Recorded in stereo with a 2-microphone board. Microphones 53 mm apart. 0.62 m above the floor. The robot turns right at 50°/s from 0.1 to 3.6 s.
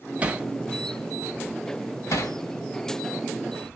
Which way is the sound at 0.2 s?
25° right (ahead or behind).